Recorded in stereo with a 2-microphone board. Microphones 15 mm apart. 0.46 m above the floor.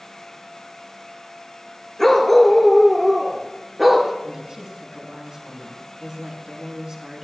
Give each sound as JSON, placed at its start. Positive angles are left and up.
{"t": 2.0, "sound": "a dog barking", "side_deg": 10, "distance_m": 2.5}
{"t": 4.2, "sound": "a woman speaking", "side_deg": -55, "distance_m": 3.5}